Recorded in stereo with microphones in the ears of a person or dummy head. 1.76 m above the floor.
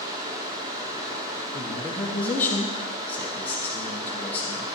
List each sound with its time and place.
0.0 s running water: 15° right (ahead or behind), 0.9 m
1.5 s a man speaking: 15° left (ahead or behind), 1.2 m